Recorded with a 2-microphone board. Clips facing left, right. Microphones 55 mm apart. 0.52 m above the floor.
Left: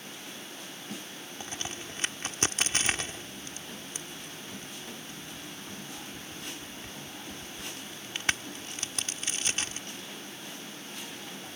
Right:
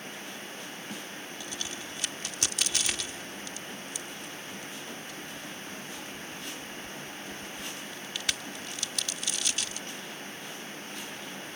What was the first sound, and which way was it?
A crack, 40° left (ahead or behind).